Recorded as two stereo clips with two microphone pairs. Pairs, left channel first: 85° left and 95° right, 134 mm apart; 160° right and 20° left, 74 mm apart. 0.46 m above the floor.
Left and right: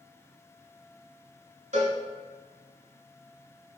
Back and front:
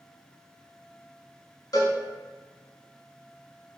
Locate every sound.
1.7 s a cowbell: 125° right, 0.7 m